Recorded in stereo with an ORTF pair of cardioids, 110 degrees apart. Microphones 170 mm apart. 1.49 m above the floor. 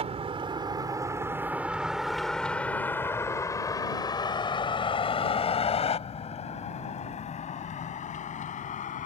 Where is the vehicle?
40° right; by 9.1 s 50° left.